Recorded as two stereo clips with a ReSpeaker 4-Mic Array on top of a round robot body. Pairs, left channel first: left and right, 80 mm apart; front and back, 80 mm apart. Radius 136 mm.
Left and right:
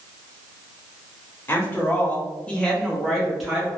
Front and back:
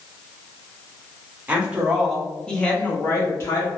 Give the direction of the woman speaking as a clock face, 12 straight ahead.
8 o'clock.